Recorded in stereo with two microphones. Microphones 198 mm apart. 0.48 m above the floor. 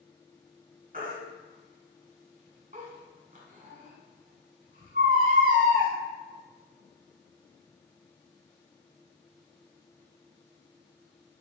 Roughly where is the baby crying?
Right.